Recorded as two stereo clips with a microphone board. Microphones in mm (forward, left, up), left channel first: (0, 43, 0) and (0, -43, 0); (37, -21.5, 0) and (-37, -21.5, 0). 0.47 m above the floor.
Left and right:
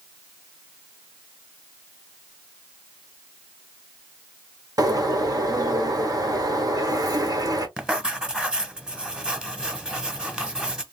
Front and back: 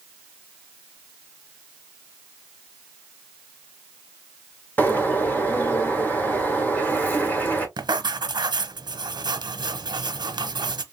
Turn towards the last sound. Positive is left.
turn(degrees=-170)